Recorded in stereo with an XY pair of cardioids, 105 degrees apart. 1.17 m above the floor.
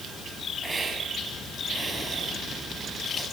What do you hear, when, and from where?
0.6 s a hiss: 25° right, 8 m